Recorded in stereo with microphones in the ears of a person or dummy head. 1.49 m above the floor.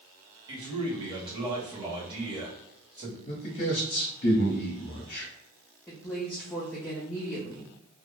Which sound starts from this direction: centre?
A woman speaking, at 5.9 s.